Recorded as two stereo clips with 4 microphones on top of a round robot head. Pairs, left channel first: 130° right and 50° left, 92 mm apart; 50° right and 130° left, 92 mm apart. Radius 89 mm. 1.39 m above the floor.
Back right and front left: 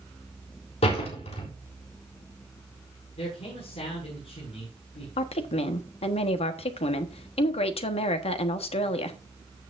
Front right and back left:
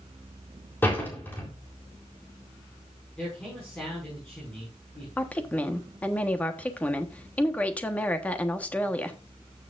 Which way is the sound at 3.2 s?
130° right.